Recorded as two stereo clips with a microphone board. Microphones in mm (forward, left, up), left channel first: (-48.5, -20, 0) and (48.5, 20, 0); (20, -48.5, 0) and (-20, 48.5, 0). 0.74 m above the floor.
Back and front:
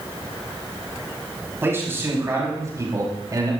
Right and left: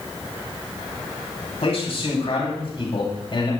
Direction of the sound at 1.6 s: 45° right.